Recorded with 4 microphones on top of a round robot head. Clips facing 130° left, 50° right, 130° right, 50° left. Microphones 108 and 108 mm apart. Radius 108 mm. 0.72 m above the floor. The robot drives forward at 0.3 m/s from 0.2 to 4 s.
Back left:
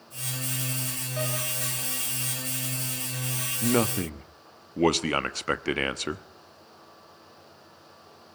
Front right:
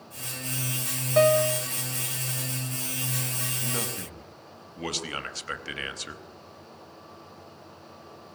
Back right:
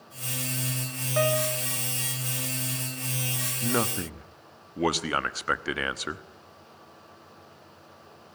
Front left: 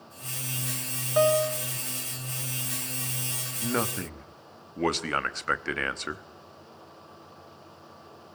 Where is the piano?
20° right, 0.9 m; by 1.7 s 25° right, 0.8 m.